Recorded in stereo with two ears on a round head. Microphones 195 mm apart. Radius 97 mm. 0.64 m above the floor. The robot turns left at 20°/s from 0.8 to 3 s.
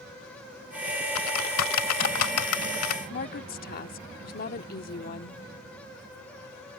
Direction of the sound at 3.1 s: 45° left (ahead or behind).